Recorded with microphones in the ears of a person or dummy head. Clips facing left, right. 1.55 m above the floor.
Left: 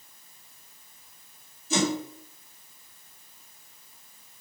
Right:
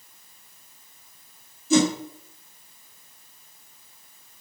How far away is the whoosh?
About 0.7 m.